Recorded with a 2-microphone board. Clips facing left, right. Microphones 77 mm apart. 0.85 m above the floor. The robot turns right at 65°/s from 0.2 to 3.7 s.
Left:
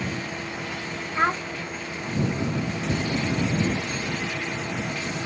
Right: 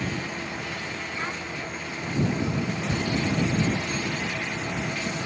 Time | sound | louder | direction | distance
1.1 | a child speaking | left 12 dB | 75° left (ahead or behind) | ?